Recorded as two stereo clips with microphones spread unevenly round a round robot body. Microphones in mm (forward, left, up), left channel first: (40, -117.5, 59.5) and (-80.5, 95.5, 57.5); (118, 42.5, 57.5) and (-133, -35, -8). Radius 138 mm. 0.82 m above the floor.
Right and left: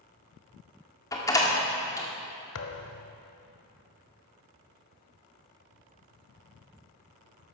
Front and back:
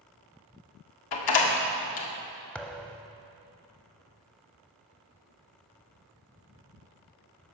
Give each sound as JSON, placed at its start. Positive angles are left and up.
{"t": 1.1, "sound": "a door slam", "azimuth_deg": 15, "distance_m": 1.8}
{"t": 2.5, "sound": "a thud", "azimuth_deg": -55, "distance_m": 0.8}